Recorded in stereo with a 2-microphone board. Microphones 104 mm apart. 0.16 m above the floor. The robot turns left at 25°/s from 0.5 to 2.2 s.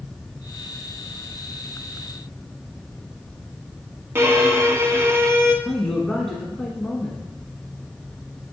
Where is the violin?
25° right (ahead or behind), 0.9 m.